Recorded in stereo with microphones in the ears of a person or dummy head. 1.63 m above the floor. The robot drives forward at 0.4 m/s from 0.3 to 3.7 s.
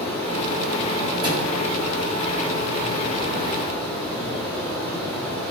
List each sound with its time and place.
0.0 s running water: 25° left (ahead or behind), 1.3 m; by 5.5 s 10° left (ahead or behind), 2.5 m
1.2 s a thud: 25° right (ahead or behind), 2.0 m